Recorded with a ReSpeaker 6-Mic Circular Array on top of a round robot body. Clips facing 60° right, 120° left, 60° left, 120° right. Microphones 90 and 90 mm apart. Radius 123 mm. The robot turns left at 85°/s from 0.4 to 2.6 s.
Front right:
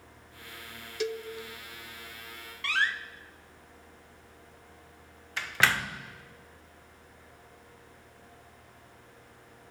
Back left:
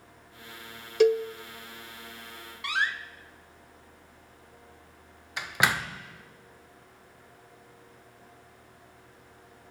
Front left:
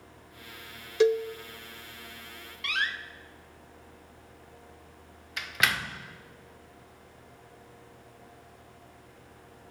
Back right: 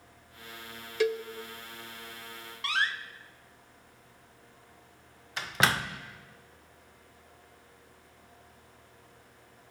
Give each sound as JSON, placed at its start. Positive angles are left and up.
{"t": 1.0, "sound": "a cowbell", "azimuth_deg": 120, "distance_m": 0.7}
{"t": 2.6, "sound": "a door slam", "azimuth_deg": -170, "distance_m": 0.8}